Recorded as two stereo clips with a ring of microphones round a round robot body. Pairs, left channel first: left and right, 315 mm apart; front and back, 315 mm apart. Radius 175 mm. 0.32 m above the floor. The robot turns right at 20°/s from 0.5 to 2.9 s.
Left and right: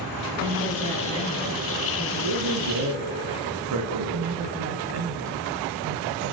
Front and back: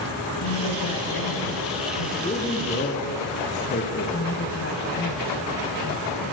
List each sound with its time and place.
0.4 s a woman speaking: 35° right, 6.5 m; by 2.1 s straight ahead, 6.5 m
2.2 s a man speaking: 75° right, 5.5 m; by 4.3 s 60° right, 5.5 m
4.1 s a woman speaking: 55° right, 2.5 m